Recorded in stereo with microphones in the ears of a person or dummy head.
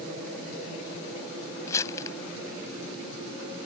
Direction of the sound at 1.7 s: 20° left (ahead or behind).